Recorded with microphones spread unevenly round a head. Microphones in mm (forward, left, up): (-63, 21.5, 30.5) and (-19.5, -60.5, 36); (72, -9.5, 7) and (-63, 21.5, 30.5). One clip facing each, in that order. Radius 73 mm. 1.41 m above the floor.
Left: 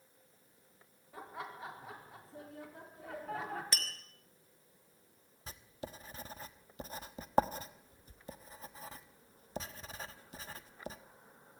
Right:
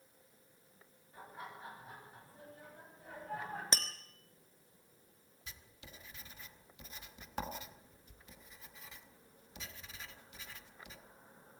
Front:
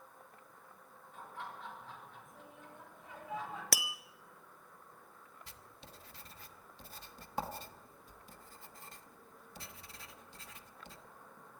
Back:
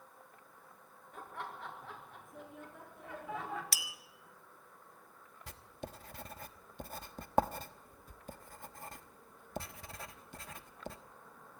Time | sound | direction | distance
1.1 | laughter | 130° left | 4.5 m
3.7 | tapping | 5° right | 0.9 m
5.5 | writing | 165° left | 1.1 m